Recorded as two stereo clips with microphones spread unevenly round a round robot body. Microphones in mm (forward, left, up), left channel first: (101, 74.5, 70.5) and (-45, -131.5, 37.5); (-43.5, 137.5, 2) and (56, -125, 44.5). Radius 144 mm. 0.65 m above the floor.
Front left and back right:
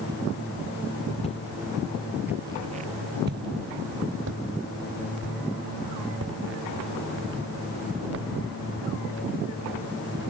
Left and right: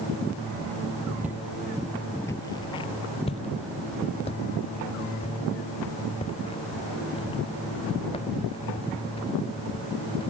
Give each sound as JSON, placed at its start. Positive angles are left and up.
{"t": 1.2, "sound": "footsteps", "azimuth_deg": 5}